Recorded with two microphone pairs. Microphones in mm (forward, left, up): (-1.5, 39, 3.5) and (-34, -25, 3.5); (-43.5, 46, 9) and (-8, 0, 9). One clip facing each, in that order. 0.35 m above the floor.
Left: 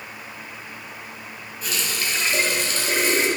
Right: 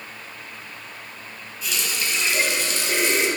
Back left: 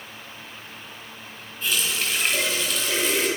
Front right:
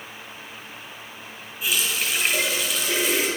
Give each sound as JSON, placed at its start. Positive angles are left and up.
{"t": 1.6, "sound": "a running tap", "azimuth_deg": 30, "distance_m": 1.5}